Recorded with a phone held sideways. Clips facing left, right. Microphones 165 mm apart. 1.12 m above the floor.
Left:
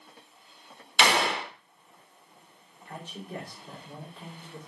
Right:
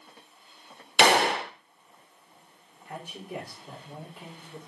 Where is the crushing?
I don't hear crushing.